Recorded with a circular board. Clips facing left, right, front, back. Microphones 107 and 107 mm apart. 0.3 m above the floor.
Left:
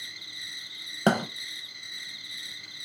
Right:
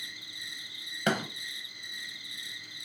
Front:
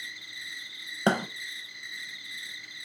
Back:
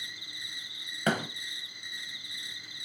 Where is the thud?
50° left, 0.8 m.